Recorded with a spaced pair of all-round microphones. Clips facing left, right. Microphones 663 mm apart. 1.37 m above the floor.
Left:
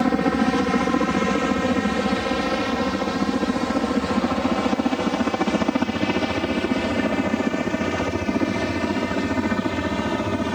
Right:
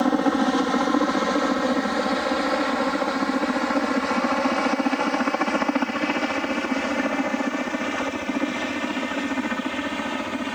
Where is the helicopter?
55° left (ahead or behind); by 10.6 s 65° left (ahead or behind).